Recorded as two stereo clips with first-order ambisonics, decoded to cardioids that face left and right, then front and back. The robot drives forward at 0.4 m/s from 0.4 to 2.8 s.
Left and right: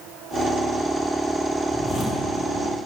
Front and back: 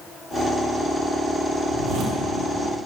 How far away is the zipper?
About 2.5 m.